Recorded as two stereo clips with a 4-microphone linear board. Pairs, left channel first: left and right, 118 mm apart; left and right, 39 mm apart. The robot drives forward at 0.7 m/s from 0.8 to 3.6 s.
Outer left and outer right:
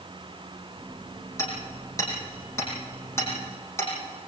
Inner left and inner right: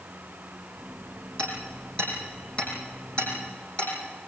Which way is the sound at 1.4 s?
25° left (ahead or behind).